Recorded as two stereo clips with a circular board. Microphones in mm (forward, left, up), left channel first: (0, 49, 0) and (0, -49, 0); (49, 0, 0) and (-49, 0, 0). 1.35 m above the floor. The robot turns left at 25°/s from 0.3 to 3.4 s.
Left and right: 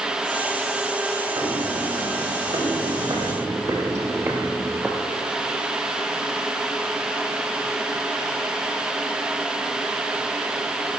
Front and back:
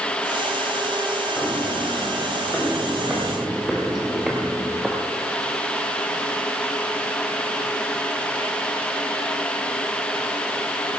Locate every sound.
1.4 s footsteps: 55° right, 2.5 m; by 5.0 s 95° right, 1.3 m